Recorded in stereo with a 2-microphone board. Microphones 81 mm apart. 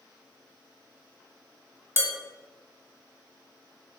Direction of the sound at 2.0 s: 35° right (ahead or behind).